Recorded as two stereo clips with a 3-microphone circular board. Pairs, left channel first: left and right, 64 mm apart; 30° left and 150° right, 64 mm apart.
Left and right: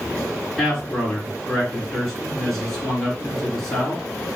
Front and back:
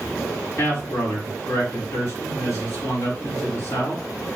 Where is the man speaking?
10° left, 3 m.